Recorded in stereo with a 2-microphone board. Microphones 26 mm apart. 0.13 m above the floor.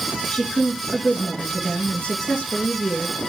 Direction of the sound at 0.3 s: 50° left (ahead or behind).